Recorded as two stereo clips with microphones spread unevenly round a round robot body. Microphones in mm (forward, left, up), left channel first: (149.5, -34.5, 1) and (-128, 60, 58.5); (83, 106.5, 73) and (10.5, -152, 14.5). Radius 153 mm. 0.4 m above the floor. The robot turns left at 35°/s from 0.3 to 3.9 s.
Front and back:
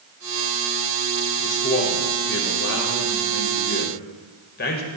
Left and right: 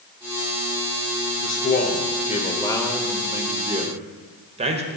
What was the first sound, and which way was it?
A man speaking, 30° left.